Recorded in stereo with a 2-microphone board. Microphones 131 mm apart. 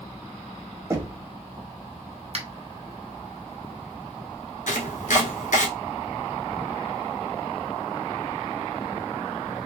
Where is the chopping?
85° left, 1.0 m.